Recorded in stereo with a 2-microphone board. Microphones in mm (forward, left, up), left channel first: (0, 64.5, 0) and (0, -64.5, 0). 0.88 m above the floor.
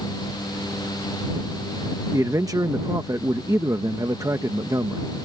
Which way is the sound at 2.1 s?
25° right (ahead or behind).